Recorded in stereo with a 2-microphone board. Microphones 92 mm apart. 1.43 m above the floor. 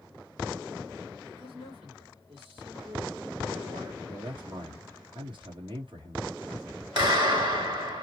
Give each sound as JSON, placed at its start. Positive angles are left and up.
{"t": 1.3, "sound": "a man speaking", "side_deg": -65, "distance_m": 3.5}
{"t": 4.1, "sound": "a man speaking", "side_deg": -60, "distance_m": 1.6}
{"t": 7.0, "sound": "a clap", "side_deg": -50, "distance_m": 2.0}